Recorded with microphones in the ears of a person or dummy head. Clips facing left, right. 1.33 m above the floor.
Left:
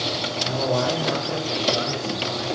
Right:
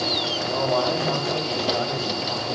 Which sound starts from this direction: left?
A man speaking, at 0.4 s.